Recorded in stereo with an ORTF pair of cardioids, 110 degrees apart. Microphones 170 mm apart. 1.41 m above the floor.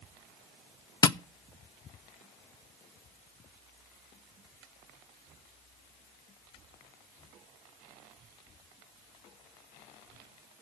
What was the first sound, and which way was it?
Tapping, 20° left.